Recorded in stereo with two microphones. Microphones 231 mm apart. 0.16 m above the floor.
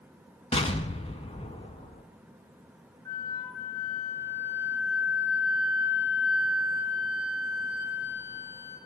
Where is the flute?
50° right (ahead or behind), 4.5 m.